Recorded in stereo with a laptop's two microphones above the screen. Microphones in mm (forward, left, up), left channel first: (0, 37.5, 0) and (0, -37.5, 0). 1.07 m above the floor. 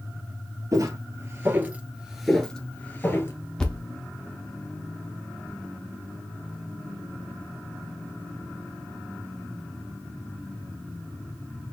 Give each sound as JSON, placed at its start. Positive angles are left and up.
{"t": 0.7, "sound": "footsteps", "side_deg": -45, "distance_m": 1.4}
{"t": 3.6, "sound": "a thud", "side_deg": 10, "distance_m": 0.7}